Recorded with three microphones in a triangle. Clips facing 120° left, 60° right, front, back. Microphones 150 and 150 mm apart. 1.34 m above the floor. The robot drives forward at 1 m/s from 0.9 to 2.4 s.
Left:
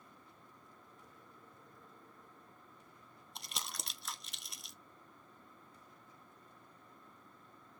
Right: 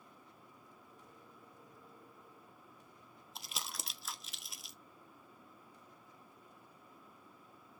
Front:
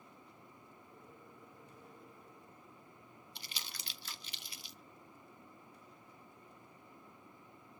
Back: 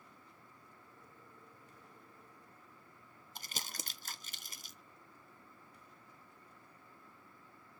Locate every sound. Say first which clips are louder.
3.4 s crumpling: even, back 6 dB; 150° right, 0.6 m